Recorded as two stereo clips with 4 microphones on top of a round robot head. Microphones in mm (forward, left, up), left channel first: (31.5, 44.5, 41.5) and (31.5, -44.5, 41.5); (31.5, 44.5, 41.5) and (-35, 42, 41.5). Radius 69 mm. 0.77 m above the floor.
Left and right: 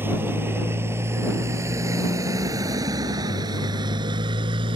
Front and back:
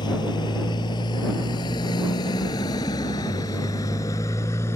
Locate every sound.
0.0 s a motorcycle: 25° right; by 4.8 s 60° right